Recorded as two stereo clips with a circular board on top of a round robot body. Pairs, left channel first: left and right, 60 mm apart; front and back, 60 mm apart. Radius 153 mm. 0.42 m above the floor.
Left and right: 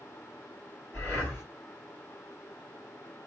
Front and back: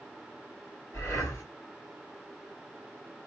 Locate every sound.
0.9 s breathing: 35° left, 3 m